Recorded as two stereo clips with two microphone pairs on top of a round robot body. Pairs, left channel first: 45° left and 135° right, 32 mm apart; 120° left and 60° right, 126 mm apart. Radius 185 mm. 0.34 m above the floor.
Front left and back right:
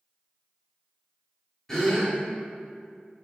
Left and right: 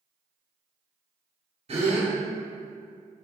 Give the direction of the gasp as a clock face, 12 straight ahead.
1 o'clock.